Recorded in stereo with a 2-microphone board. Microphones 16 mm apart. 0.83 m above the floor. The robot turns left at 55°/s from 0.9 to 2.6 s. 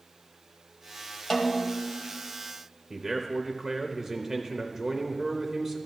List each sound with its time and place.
1.3 s a snare drum: 150° left, 1.0 m; by 1.9 s 115° left, 1.0 m
2.9 s a man speaking: 20° right (ahead or behind), 0.6 m